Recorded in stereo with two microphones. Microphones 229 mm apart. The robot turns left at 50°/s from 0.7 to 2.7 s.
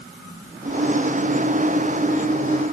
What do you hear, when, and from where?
Only background noise.